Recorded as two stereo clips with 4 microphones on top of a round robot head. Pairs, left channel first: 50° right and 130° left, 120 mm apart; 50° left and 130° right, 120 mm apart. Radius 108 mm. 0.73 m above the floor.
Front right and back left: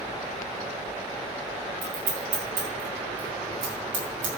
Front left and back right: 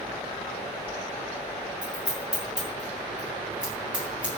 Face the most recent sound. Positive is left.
turn(degrees=150)